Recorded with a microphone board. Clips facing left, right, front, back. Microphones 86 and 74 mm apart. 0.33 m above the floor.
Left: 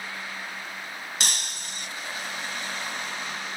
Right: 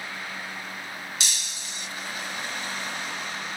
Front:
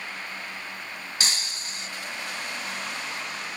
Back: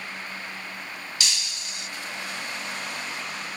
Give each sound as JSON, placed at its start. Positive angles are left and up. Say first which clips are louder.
{"t": 1.2, "sound": "breaking glass", "louder": "left 3 dB, front 2 dB", "azimuth_deg": 50, "distance_m": 0.5}